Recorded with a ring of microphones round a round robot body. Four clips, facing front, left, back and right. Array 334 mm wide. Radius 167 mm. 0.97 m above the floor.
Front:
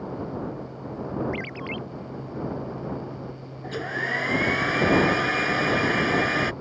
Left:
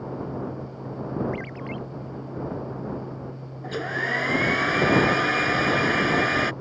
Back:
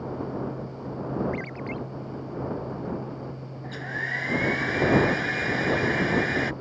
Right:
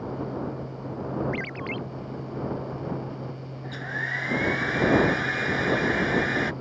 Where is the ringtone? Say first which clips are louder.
Right 1 dB, even; 55° right.